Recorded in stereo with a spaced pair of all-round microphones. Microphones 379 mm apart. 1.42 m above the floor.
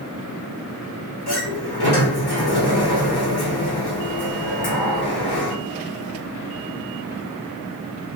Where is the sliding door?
80° left, 1.1 m.